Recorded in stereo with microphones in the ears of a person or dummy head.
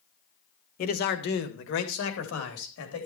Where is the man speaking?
45° left (ahead or behind), 1.2 m; by 3.1 s 80° left, 3.5 m.